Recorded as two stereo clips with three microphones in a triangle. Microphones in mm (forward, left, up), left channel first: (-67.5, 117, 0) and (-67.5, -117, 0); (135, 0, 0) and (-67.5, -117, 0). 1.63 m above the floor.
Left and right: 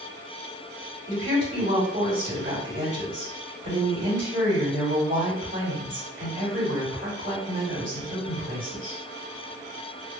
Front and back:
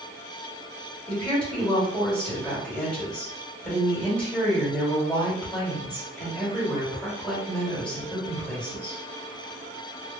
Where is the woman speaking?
55° right, 1.9 m.